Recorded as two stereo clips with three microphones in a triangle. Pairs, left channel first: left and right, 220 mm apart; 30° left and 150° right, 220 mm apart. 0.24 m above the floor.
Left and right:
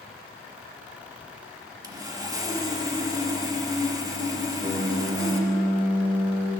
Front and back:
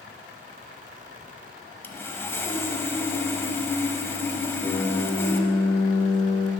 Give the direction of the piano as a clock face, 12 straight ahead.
1 o'clock.